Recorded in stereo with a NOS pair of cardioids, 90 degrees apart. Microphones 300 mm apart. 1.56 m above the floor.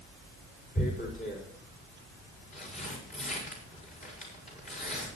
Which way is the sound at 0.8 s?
25° left.